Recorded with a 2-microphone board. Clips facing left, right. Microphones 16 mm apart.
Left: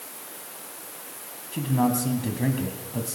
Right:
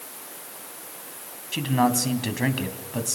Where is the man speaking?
60° right (ahead or behind), 3 m.